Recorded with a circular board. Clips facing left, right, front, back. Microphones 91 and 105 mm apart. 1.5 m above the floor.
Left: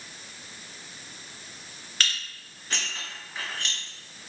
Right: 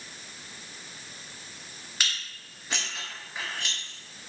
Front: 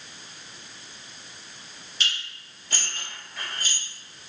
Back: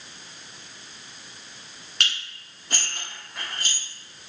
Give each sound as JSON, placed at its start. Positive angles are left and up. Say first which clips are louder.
{"t": 2.0, "sound": "dishes clattering", "louder": "left 2 dB, back 2 dB", "azimuth_deg": -165, "distance_m": 1.7}